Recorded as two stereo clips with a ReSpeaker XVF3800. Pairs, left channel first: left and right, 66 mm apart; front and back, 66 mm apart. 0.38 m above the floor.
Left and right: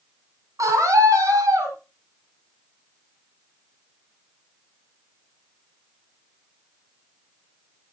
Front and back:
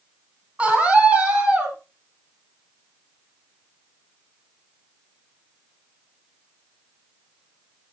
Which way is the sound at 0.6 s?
110° right.